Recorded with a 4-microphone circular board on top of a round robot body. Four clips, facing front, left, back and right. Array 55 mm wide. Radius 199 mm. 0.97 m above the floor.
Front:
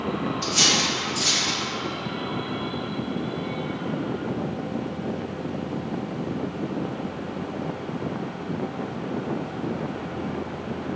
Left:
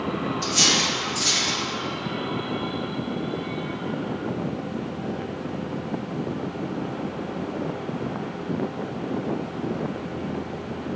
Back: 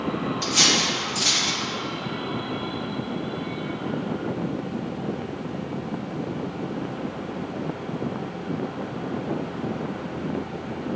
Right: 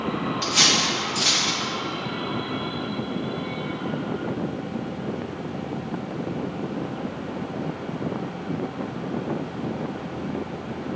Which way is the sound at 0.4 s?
115° right.